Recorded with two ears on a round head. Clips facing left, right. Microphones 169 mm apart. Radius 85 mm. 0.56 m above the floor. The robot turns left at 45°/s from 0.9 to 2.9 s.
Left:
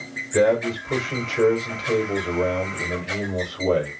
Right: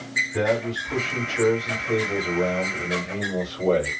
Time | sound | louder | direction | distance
0.3 | a man speaking | left 5 dB | 95° left | 1.5 m